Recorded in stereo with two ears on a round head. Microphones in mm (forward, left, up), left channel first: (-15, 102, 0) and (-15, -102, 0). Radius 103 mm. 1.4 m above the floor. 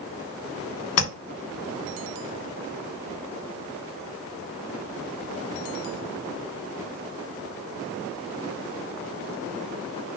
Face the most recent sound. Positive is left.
turn(degrees=75)  # may be behind; listen again after turning